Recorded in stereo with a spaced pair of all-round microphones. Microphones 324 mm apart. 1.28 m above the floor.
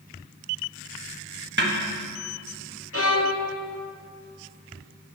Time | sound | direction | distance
1.6 | a snare drum | 30° right (ahead or behind) | 1.1 m
2.9 | a violin | 40° left (ahead or behind) | 0.8 m